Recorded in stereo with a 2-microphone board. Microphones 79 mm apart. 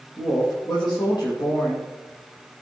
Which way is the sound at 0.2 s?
70° left (ahead or behind).